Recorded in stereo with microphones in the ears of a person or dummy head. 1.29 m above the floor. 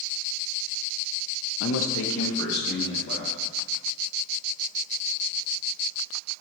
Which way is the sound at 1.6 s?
65° left (ahead or behind).